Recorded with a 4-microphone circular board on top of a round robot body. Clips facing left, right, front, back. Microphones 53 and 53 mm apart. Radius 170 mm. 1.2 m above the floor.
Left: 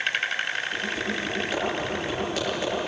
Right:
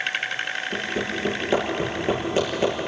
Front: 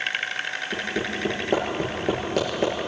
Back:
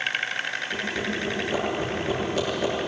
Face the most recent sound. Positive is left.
turn(degrees=-30)